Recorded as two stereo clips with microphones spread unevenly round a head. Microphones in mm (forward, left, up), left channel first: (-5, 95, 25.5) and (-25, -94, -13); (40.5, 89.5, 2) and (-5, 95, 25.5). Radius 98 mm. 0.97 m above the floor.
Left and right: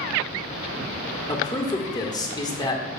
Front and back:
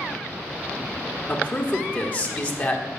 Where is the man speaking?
10° left, 1.4 m.